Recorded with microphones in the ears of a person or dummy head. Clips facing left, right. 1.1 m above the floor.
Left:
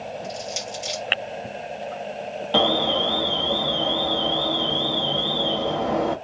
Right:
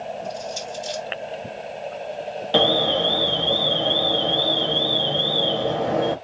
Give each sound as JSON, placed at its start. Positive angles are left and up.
{"t": 0.2, "sound": "crushing", "side_deg": 65, "distance_m": 1.8}
{"t": 2.5, "sound": "an alarm", "side_deg": -15, "distance_m": 0.9}